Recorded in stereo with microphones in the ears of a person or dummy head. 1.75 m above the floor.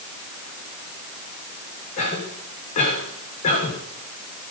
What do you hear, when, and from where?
2.0 s a cough: 40° left (ahead or behind), 7 m